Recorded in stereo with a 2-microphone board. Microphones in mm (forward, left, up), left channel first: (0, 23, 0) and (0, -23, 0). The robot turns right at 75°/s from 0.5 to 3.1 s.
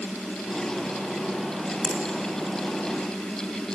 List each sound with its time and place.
1.8 s a finger snap: centre (ahead or behind), 1.8 m; by 2.0 s 15° left (ahead or behind), 1.8 m